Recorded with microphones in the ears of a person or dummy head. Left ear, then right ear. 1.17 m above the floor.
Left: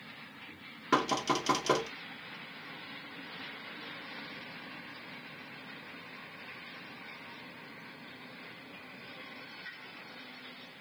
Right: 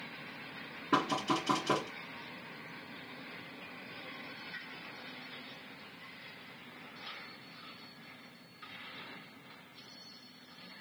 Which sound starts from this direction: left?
Knocking, at 0.9 s.